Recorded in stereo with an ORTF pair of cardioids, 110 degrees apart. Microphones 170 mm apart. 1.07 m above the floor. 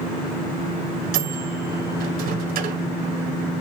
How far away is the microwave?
About 4 m.